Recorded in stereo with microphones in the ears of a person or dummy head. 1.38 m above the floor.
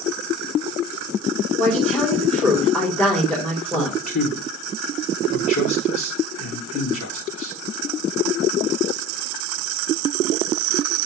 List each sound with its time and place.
1.6 s a woman speaking: 10° left (ahead or behind), 3.5 m
3.7 s a man speaking: 80° left, 2.5 m